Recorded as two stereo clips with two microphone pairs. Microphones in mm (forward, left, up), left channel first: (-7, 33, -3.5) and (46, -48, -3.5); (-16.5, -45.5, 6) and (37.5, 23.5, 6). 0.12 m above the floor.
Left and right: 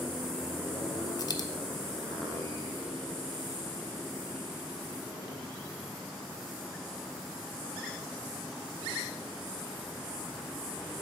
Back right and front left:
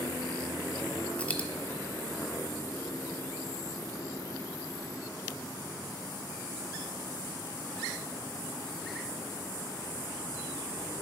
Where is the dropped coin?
160° left, 0.6 m.